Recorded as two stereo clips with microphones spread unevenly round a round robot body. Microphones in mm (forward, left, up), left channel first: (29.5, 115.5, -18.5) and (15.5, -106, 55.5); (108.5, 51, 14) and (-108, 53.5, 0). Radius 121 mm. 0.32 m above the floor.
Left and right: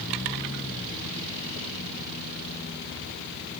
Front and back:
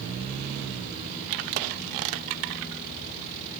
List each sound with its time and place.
Only background noise.